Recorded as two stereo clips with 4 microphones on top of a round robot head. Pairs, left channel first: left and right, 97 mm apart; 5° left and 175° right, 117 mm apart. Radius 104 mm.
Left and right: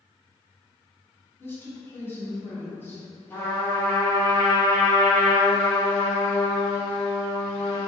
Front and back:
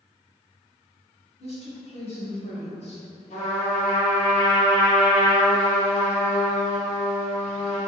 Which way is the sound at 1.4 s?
25° left.